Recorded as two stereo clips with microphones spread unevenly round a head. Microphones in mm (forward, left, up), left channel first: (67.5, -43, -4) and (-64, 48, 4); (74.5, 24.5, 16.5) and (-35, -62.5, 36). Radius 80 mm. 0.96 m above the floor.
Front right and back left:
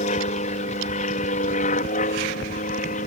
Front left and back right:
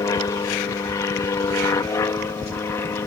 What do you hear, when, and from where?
0.0 s an aircraft: 15° right; by 3.1 s 25° right